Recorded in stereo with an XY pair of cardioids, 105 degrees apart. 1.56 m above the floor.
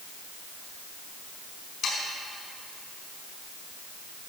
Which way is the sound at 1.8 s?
65° left.